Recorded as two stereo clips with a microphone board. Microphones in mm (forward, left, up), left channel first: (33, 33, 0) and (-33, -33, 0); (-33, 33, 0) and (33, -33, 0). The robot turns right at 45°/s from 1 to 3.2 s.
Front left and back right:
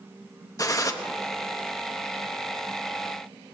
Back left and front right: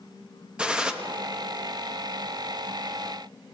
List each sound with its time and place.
0.6 s a gunshot: 30° left, 0.9 m